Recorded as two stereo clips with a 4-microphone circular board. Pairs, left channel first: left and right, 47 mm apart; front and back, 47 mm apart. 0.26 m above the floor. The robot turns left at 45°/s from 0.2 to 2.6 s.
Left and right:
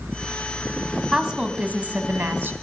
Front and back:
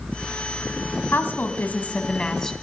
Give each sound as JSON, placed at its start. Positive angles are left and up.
{"t": 1.1, "sound": "a woman speaking", "azimuth_deg": -15, "distance_m": 1.5}